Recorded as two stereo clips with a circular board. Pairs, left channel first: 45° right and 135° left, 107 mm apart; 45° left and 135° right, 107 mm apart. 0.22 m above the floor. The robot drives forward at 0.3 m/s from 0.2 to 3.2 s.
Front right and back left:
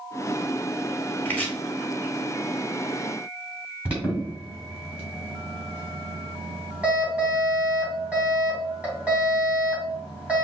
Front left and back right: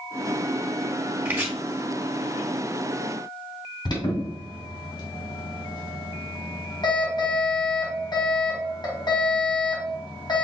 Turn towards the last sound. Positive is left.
turn(degrees=60)